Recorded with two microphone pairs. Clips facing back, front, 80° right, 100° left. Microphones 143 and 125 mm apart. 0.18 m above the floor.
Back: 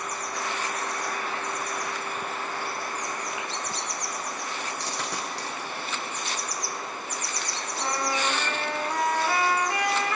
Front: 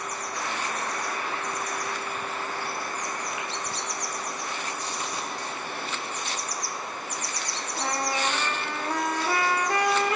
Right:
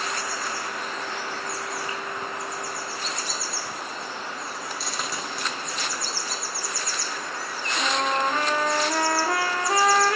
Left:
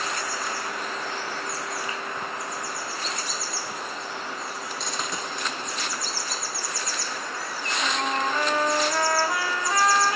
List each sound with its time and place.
4.8 s a dropped coin: 170° right, 4.5 m
7.8 s a trumpet: 65° right, 7 m